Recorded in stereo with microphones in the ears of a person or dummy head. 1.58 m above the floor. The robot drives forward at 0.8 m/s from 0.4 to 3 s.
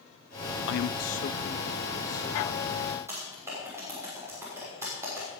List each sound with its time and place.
0.7 s a man speaking: 65° left (ahead or behind), 0.5 m; by 2.8 s 15° left (ahead or behind), 1.9 m
3.1 s typing on a keyboard: 15° right (ahead or behind), 6 m